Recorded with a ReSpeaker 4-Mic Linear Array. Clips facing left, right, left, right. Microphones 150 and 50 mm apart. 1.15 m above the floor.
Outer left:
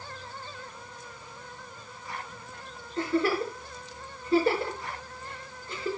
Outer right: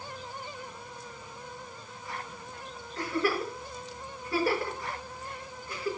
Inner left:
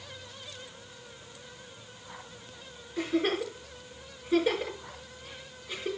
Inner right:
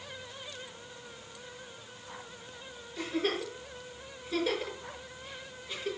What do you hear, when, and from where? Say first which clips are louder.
3.0 s a giggle: outer left 3 dB, inner left 4 dB; 25° left (ahead or behind), 5.5 m